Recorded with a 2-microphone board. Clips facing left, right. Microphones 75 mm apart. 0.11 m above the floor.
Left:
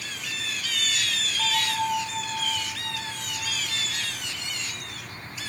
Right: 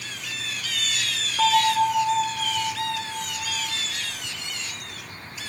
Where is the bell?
70° right (ahead or behind), 6 m.